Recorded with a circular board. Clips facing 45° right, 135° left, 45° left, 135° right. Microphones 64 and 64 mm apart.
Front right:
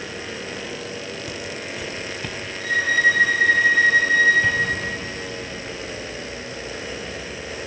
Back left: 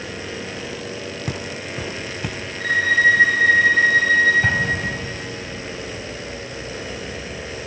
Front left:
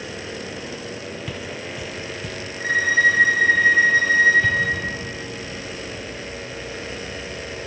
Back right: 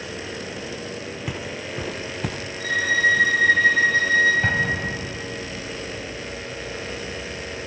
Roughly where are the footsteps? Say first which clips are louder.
Back left 2 dB, even; behind.